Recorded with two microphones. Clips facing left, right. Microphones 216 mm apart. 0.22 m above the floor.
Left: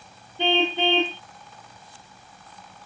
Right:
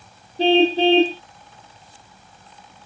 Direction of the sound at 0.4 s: 35° right (ahead or behind).